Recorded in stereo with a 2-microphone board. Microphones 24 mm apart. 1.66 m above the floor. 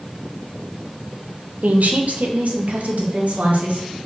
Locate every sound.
1.6 s a woman speaking: 75° right (ahead or behind), 1.0 m; by 3.9 s 80° right, 3 m